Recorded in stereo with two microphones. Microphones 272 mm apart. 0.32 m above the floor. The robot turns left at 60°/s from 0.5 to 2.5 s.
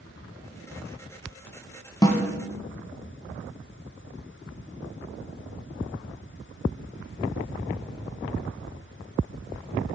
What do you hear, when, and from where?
2.0 s a snare drum: 15° left (ahead or behind), 0.6 m; by 2.2 s 5° left (ahead or behind), 0.6 m